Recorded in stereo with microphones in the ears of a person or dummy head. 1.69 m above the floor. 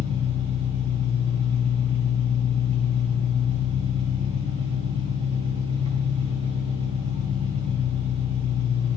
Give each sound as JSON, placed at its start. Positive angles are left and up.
{"t": 0.0, "sound": "an engine running", "side_deg": -30, "distance_m": 2.5}